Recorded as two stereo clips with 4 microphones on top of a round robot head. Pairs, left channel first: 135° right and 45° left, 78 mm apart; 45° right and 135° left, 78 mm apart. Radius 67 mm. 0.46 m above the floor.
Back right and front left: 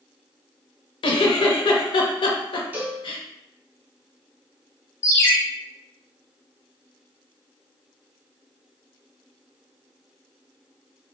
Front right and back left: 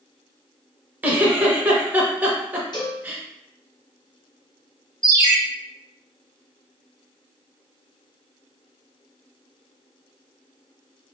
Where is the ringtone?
Straight behind, 1.3 m.